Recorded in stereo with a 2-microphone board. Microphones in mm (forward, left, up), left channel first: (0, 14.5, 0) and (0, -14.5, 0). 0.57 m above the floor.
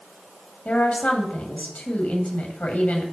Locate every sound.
0.7 s a woman speaking: 65° left (ahead or behind), 2.5 m